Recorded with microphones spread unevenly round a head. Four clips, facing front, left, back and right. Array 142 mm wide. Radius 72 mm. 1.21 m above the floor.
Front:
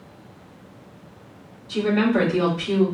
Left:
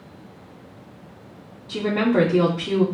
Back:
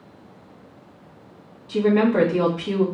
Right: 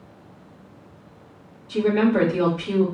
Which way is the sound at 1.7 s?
140° left.